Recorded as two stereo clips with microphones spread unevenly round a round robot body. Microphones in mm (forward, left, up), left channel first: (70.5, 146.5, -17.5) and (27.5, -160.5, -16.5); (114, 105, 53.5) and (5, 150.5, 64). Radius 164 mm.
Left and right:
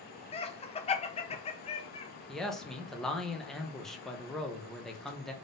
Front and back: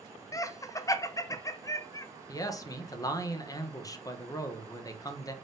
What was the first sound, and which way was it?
Laughter, 20° left.